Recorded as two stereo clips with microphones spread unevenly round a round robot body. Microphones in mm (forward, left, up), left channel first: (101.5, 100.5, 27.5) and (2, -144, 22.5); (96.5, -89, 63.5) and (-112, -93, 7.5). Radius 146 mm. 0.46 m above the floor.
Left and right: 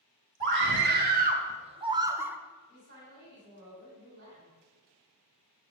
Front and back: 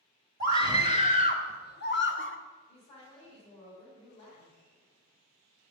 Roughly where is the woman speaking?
Ahead right.